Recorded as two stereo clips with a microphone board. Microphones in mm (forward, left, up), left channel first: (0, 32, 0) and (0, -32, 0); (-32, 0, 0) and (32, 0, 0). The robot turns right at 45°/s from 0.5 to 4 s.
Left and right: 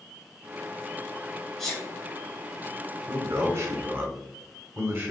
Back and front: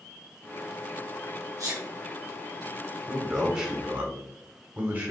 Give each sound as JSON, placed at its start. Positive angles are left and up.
{"t": 1.6, "sound": "a sneeze", "azimuth_deg": 5, "distance_m": 1.8}
{"t": 3.1, "sound": "a man speaking", "azimuth_deg": -100, "distance_m": 1.1}